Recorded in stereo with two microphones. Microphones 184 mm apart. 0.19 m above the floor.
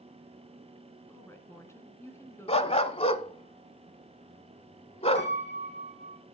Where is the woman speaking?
15° left (ahead or behind), 2 m.